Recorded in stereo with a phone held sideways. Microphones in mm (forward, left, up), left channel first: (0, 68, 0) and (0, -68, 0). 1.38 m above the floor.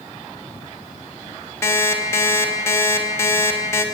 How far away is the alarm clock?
About 0.9 m.